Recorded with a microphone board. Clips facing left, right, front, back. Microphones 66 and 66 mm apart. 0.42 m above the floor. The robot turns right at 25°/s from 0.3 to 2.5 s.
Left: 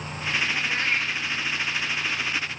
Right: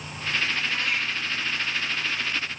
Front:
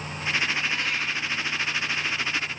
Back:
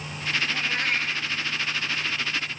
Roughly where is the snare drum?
I don't hear a snare drum.